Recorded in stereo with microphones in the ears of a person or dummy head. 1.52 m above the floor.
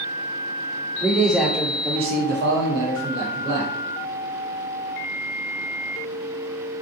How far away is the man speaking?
About 0.9 m.